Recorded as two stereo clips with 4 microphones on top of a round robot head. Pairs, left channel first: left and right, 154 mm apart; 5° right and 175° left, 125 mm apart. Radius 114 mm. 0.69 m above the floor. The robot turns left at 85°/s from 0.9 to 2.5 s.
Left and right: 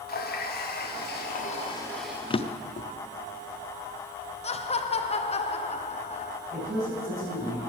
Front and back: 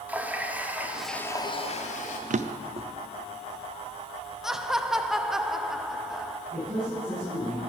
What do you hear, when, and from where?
0.1 s a running tap: 100° left, 1.0 m; by 2.2 s 10° right, 1.0 m
2.3 s a drawer: 150° left, 0.5 m; by 2.9 s 135° left, 0.5 m
4.4 s laughter: 90° left, 0.9 m
6.5 s a man speaking: 90° right, 4.5 m